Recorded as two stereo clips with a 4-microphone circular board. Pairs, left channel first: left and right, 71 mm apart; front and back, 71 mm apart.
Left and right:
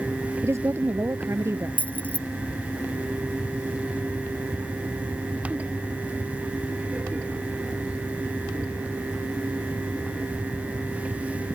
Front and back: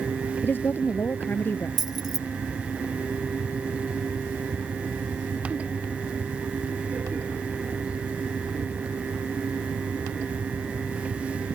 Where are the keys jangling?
160° left.